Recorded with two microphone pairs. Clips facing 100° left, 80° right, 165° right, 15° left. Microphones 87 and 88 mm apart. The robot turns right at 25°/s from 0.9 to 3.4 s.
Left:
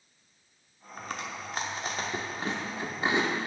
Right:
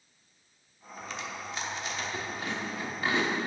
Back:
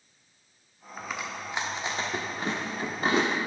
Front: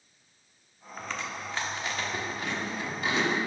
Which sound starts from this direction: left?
Chewing, at 1.0 s.